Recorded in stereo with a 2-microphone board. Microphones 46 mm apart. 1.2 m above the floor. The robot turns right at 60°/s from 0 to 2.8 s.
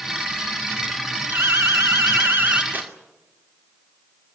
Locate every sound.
1.3 s an alarm: 125° right, 2 m; by 2.6 s 45° right, 2 m
2.7 s tearing paper: 40° right (ahead or behind), 2.5 m; by 2.9 s 45° right (ahead or behind), 2.5 m